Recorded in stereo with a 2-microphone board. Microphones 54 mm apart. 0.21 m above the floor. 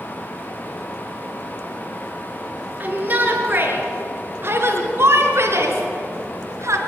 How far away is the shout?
About 4 m.